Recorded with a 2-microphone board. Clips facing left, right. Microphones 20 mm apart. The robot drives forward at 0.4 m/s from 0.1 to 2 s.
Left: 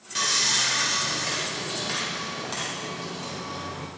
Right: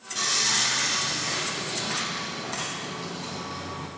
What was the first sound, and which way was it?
Sawing, 75° left (ahead or behind).